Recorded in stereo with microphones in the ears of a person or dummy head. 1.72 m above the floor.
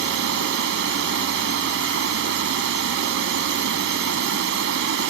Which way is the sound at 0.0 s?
60° right (ahead or behind).